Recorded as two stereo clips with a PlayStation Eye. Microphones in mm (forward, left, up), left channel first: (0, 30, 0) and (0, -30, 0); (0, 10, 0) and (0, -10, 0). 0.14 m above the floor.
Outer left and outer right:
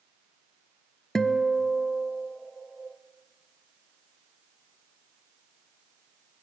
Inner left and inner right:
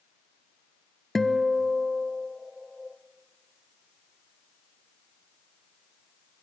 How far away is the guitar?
About 0.8 m.